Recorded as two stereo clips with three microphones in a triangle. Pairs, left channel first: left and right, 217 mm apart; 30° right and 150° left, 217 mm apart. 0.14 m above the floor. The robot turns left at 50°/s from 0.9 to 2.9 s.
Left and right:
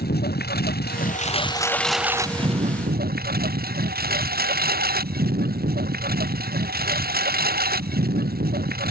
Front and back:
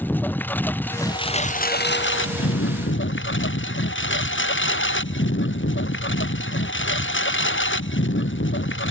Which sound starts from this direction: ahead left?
A lawn mower, at 0.0 s.